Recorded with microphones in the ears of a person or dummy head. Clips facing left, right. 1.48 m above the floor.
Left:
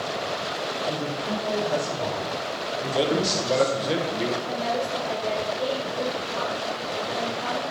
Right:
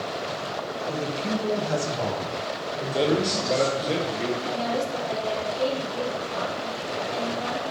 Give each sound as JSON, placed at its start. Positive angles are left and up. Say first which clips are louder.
{"t": 0.9, "sound": "a man speaking", "louder": "right 3 dB", "side_deg": -75, "distance_m": 2.0}
{"t": 2.9, "sound": "a man speaking", "louder": "right 1 dB", "side_deg": 0, "distance_m": 1.1}
{"t": 4.4, "sound": "a woman speaking", "louder": "even", "side_deg": -90, "distance_m": 4.5}